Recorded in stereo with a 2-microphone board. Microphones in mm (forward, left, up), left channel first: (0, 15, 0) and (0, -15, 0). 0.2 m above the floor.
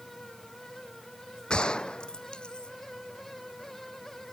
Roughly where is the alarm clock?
I don't hear an alarm clock.